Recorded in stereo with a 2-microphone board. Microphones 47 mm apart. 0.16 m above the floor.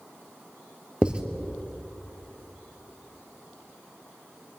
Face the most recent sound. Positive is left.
turn(degrees=-20)  # may be behind; listen again after turning